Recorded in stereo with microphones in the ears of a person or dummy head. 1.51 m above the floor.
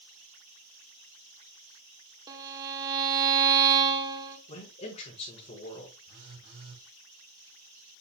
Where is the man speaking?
40° left (ahead or behind), 6 m.